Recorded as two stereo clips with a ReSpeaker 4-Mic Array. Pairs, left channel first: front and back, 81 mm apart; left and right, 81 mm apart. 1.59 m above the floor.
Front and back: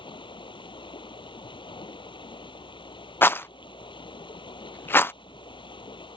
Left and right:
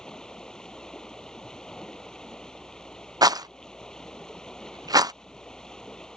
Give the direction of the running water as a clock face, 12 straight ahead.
12 o'clock.